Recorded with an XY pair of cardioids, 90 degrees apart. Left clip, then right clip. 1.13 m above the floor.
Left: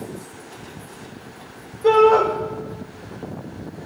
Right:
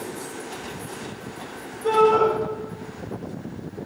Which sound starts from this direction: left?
A shout, at 1.8 s.